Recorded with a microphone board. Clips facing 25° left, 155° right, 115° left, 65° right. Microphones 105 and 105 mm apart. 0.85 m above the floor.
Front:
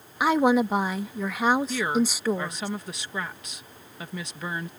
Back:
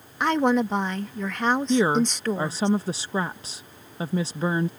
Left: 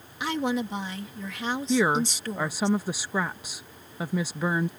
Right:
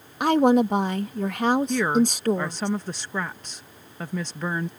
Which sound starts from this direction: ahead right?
A woman speaking, at 0.2 s.